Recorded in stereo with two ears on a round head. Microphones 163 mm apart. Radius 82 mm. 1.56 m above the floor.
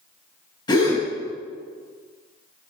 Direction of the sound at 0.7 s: 20° left (ahead or behind).